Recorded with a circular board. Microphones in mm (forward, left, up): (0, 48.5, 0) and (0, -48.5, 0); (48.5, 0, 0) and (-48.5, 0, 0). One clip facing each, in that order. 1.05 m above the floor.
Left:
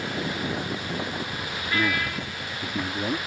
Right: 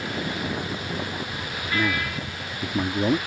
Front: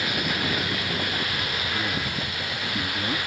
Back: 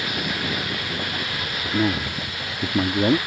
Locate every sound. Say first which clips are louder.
1.6 s a man speaking: even, back 11 dB; straight behind; by 3.2 s 155° right